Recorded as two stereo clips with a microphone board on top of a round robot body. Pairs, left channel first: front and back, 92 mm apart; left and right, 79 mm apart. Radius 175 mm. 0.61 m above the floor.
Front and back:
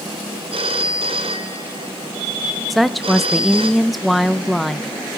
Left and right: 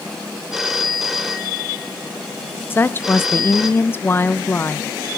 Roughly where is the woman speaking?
Left.